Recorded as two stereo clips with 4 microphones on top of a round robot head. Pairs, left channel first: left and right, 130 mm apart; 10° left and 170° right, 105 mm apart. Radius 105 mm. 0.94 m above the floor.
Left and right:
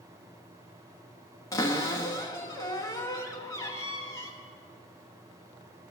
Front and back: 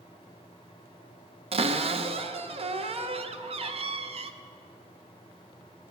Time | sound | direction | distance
1.5 | a cupboard door | 160° left | 0.7 m